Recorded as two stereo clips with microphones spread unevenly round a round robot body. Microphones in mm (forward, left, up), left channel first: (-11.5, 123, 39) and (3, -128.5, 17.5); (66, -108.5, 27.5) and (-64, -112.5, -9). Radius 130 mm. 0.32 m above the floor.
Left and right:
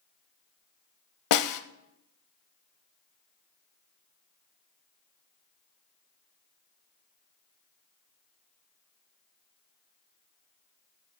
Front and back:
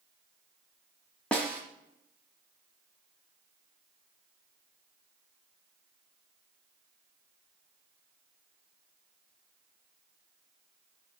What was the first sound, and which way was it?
A snare drum, 95° left.